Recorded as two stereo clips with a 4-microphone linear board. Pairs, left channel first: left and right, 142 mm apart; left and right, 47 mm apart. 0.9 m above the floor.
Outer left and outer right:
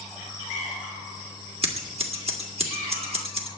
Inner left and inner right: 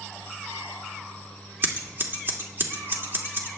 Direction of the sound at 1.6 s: 45° right (ahead or behind).